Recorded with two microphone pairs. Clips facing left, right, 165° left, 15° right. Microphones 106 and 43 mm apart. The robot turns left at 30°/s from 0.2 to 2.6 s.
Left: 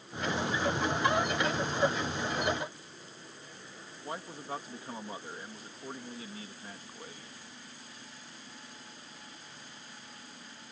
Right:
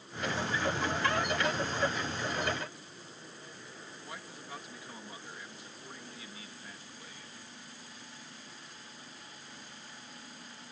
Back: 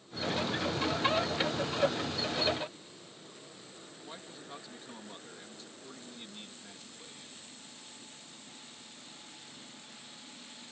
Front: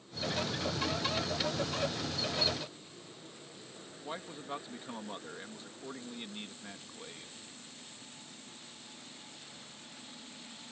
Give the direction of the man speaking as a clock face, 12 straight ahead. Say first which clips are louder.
Left 9 dB, front 7 dB; 11 o'clock.